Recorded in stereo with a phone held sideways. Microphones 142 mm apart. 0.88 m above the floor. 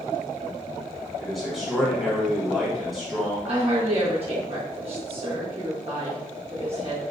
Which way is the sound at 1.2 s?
5° right (ahead or behind).